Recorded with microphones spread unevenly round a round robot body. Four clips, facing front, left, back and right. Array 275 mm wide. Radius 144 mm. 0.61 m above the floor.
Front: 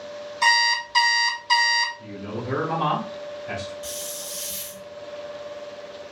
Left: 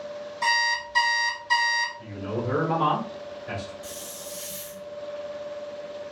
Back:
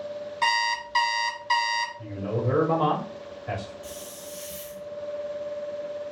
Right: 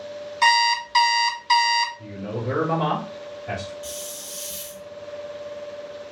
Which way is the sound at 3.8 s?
5° right.